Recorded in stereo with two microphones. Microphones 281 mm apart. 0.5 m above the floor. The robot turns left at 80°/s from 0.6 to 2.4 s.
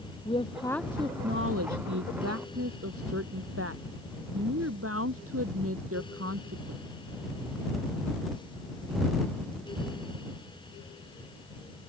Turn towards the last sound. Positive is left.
turn(degrees=-125)